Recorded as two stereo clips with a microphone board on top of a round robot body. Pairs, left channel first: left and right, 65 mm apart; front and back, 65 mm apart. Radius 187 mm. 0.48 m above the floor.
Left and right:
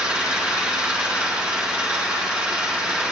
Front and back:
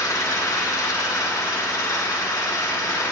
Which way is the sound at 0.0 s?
20° right.